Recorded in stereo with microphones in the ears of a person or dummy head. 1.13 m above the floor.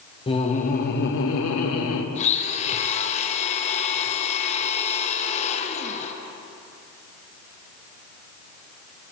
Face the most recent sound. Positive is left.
turn(degrees=35)  # may be behind; listen again after turning